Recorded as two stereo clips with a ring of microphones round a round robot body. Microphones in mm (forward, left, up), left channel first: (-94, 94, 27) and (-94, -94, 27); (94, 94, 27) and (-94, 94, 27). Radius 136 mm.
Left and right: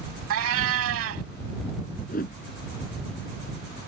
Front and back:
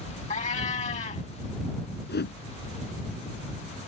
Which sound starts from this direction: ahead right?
A cat meowing, at 0.3 s.